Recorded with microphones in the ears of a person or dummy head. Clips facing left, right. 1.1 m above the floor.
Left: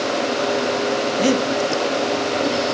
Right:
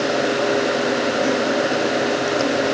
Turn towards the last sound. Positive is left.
turn(degrees=40)  # may be behind; listen again after turning